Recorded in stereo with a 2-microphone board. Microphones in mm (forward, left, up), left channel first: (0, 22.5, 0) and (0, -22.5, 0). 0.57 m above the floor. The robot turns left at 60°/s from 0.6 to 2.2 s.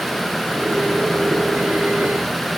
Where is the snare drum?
I don't hear a snare drum.